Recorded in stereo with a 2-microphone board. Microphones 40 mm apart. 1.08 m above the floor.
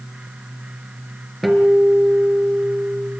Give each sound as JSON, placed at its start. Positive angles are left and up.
{"t": 1.4, "sound": "a guitar", "side_deg": 0, "distance_m": 4.0}